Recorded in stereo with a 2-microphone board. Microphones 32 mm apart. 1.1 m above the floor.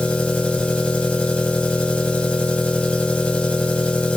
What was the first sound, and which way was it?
An engine running, 40° left (ahead or behind).